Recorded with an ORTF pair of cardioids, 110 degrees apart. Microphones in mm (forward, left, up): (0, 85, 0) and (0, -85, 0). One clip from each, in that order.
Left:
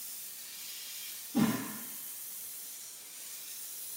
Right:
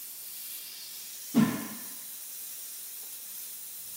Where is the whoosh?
70° right, 0.8 m.